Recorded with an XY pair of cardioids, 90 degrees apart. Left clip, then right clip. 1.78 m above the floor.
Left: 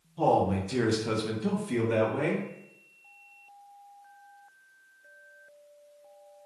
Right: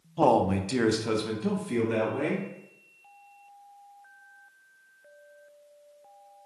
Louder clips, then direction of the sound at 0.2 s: Right 2 dB; 65° right.